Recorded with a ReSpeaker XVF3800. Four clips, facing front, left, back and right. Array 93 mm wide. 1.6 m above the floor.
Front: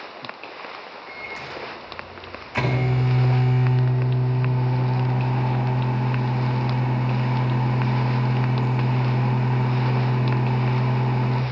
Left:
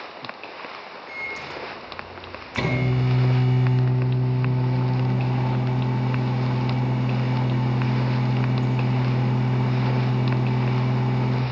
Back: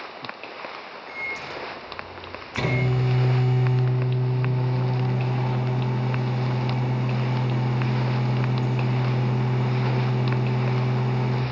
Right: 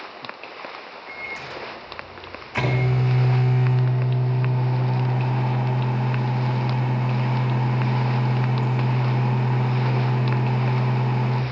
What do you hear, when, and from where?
1.1 s a microwave: 50° right, 2.5 m